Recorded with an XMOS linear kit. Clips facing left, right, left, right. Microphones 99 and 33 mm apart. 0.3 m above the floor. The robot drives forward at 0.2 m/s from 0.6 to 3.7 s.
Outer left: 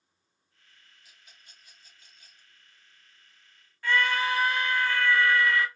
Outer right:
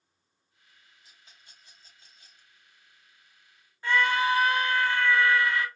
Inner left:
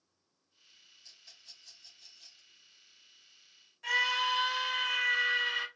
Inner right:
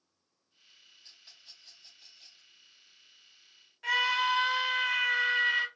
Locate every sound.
1.0 s a rattle: 35° right (ahead or behind), 1.9 m
3.8 s a scream: 25° right (ahead or behind), 1.7 m